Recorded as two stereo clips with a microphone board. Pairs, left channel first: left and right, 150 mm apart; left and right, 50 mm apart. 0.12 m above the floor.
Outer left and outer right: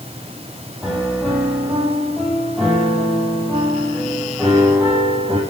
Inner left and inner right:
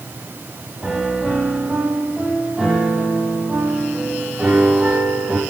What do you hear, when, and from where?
0.8 s a piano: centre (ahead or behind), 5 m